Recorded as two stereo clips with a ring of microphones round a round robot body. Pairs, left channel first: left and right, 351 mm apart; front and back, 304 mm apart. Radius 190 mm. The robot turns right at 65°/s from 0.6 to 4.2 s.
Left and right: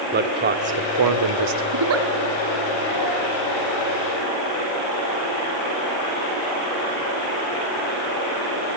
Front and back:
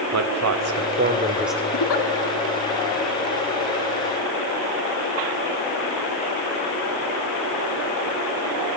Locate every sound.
0.1 s a man speaking: 150° right, 1.8 m; by 1.6 s 85° right, 1.8 m
1.7 s a giggle: 50° right, 1.6 m; by 2.1 s 30° right, 1.6 m